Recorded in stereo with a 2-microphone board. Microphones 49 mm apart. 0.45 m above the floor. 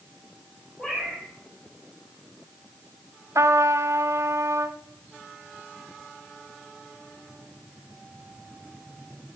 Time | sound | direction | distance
0.8 | a cat meowing | 25° left (ahead or behind) | 8 m
3.4 | a trumpet | 70° right (ahead or behind) | 1.0 m